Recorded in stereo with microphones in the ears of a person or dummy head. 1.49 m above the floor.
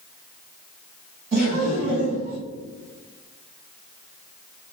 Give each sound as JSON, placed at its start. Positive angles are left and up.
{"t": 1.3, "sound": "laughter", "side_deg": -50, "distance_m": 1.3}